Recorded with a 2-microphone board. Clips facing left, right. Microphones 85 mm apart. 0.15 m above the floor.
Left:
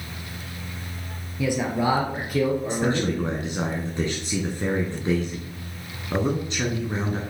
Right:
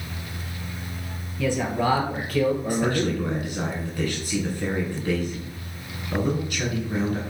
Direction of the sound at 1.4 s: 15° left (ahead or behind).